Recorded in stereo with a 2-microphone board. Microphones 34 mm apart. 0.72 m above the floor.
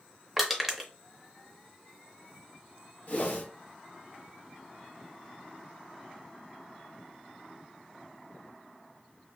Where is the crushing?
5° right (ahead or behind), 0.5 m.